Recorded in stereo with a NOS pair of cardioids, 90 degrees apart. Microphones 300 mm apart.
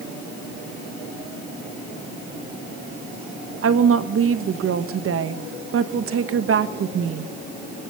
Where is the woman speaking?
50° right, 1.6 m.